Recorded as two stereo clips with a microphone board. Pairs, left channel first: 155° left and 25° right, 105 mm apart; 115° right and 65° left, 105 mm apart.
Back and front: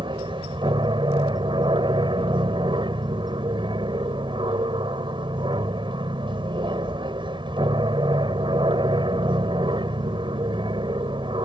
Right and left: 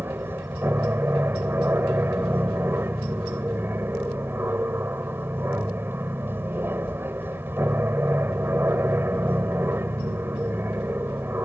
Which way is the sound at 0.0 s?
Straight ahead.